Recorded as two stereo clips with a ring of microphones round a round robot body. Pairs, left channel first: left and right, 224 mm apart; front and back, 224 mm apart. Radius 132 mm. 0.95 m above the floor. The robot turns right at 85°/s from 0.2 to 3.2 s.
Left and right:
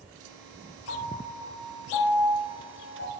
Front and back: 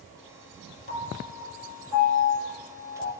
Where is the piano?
55° left, 1.4 m; by 3.1 s 115° right, 1.4 m.